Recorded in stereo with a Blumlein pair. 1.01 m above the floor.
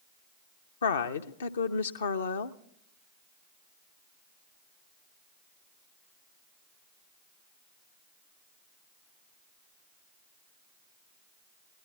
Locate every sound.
0.8 s a woman speaking: 70° left, 0.7 m